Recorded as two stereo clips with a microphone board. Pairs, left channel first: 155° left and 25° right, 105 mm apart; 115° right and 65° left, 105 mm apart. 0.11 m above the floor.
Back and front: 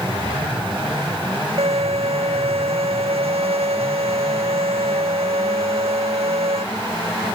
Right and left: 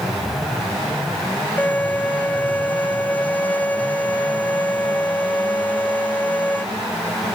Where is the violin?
40° right.